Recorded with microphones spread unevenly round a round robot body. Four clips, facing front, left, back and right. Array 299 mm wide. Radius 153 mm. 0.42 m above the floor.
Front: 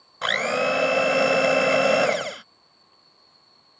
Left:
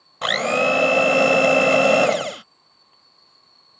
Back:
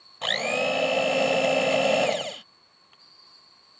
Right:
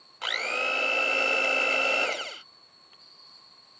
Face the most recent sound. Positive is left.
turn(degrees=85)